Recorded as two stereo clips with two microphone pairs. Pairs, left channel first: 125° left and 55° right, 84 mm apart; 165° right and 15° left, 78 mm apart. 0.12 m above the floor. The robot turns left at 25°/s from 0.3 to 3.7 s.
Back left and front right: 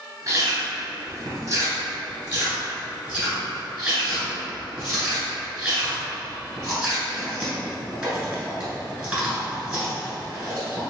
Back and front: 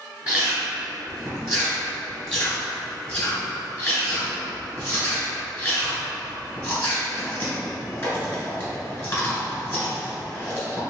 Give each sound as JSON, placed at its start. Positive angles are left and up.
{"t": 0.3, "sound": "chewing", "azimuth_deg": -45, "distance_m": 1.8}